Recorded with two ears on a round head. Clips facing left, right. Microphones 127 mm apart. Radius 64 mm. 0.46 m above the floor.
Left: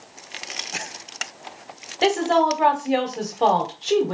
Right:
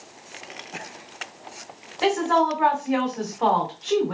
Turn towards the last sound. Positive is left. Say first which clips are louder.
# left 2 dB
turn(degrees=35)  # may be behind; listen again after turning